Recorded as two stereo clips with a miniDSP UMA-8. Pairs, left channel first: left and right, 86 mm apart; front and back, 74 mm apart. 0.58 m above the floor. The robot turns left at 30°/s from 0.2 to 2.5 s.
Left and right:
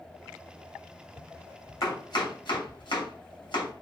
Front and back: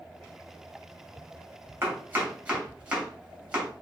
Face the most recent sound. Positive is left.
turn(degrees=105)